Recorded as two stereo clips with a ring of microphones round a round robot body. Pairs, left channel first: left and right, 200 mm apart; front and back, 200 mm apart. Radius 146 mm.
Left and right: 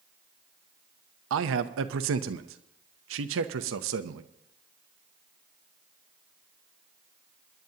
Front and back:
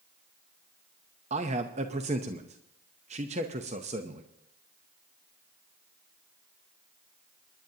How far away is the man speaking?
About 0.6 m.